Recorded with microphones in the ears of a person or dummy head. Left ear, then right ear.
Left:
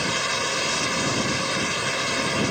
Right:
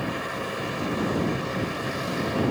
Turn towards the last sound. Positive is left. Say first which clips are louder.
# left 6 dB
turn(degrees=75)  # may be behind; listen again after turning